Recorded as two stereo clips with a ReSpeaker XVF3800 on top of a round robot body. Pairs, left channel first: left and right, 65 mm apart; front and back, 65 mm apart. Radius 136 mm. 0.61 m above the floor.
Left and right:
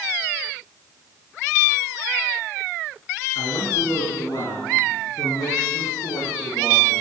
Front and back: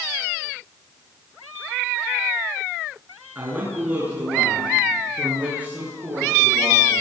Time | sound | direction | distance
3.4 | a man speaking | 115° left | 9 m